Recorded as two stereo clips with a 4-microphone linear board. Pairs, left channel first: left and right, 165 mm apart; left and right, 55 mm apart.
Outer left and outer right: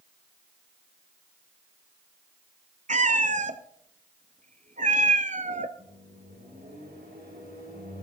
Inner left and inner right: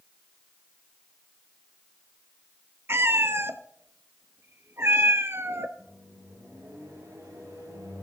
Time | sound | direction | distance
2.9 | a cat meowing | 50° right (ahead or behind) | 0.7 m
5.8 | a microwave | 80° right | 6.5 m